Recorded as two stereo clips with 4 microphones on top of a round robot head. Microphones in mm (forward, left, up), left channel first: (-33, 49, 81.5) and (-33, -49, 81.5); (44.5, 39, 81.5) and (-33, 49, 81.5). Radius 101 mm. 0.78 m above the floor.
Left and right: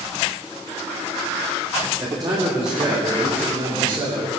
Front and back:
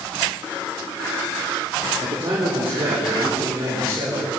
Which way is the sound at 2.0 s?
140° right.